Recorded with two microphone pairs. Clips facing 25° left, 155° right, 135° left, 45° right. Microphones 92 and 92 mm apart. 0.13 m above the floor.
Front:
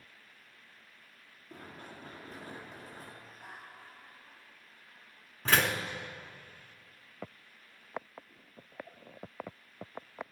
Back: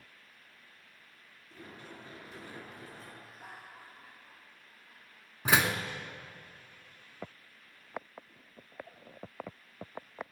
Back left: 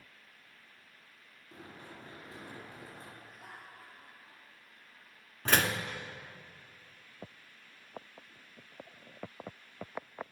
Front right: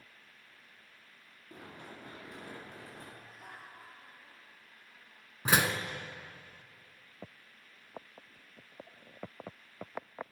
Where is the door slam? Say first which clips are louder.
Back 1 dB, front right 1 dB; 100° right, 1.1 m.